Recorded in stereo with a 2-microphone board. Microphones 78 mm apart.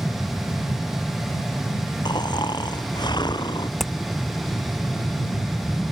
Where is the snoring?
70° left (ahead or behind).